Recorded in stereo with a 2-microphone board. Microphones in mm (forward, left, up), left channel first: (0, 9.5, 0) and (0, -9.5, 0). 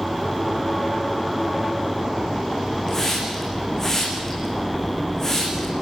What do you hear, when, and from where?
2.9 s a hiss: 20° left (ahead or behind), 5.5 m